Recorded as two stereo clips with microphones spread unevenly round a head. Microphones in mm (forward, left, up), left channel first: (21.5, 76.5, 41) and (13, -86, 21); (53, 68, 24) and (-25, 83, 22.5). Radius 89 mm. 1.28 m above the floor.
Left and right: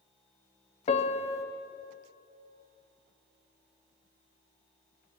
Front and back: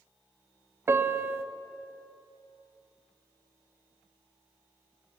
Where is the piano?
125° left, 0.6 m.